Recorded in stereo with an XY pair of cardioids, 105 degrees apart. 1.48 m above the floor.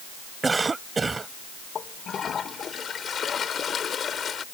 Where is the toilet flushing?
45° left.